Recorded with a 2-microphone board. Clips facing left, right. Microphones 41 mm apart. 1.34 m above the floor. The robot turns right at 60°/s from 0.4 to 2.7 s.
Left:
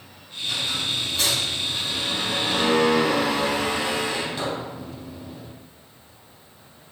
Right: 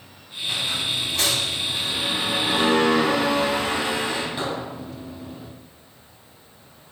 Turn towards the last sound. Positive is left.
turn(degrees=-10)